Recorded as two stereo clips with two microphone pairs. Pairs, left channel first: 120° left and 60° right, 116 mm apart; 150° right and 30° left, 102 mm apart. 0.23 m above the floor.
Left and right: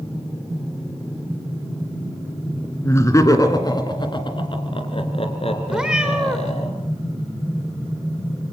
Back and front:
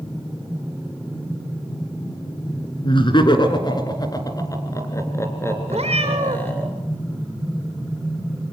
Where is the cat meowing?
25° left, 4 m.